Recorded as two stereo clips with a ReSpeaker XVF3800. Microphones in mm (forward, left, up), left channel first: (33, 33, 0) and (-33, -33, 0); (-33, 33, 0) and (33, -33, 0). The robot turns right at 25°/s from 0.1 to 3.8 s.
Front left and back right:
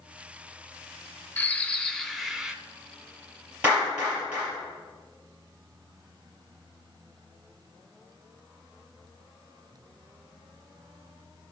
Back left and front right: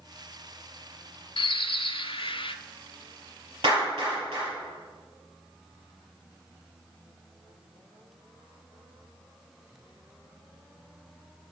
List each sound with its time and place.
1.4 s a bird: 115° left, 0.6 m; by 2.5 s 145° left, 0.6 m
3.6 s a clap: 60° right, 5 m; by 4.5 s 55° right, 5 m